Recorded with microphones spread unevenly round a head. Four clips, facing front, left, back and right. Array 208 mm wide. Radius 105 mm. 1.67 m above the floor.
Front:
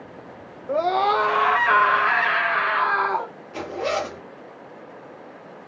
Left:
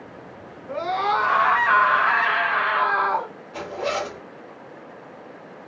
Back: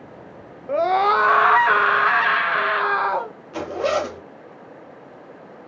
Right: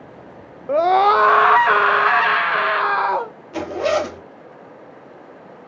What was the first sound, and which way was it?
A scream, 65° right.